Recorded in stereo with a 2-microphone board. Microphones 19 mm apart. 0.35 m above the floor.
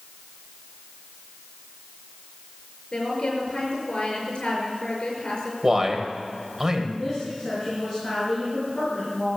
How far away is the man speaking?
About 1.9 m.